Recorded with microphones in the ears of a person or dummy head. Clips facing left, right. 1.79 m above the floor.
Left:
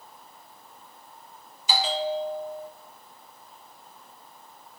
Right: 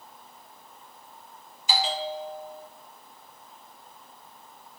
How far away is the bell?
About 1.6 m.